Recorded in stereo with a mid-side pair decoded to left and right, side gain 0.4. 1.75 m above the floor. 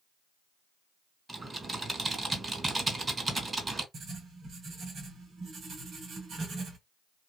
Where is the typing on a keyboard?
30° right, 2.5 m.